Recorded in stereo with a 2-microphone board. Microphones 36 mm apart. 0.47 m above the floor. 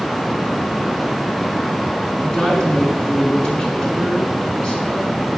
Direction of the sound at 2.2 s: 35° left (ahead or behind).